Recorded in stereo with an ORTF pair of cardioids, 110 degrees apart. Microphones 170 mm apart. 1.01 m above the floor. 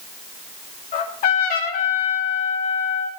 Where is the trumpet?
65° left, 2.5 m.